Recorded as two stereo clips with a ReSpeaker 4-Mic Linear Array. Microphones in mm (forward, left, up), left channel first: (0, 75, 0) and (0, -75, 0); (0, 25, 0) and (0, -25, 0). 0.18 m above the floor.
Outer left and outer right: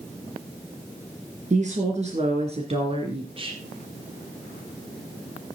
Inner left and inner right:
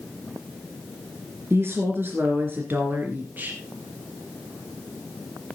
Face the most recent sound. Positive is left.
turn(degrees=-35)  # may be behind; listen again after turning